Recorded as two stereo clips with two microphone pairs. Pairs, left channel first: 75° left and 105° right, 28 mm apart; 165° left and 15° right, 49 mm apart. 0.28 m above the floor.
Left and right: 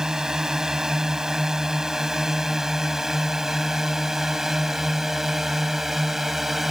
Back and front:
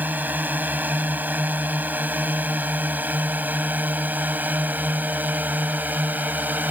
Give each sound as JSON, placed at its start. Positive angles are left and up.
{"t": 0.0, "sound": "a drone", "azimuth_deg": -50}